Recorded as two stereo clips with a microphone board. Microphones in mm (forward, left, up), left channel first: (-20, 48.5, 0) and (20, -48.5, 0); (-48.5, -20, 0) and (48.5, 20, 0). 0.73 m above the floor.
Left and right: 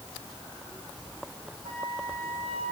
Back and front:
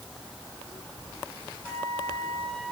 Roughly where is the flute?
Right.